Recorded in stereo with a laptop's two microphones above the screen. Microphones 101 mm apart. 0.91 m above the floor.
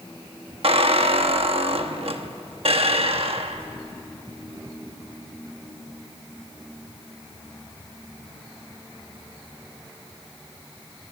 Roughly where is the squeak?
Right.